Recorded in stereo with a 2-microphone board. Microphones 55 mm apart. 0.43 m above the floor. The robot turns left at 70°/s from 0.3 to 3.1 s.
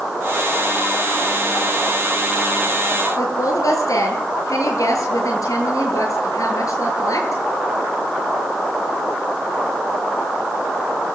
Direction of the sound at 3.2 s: 80° left.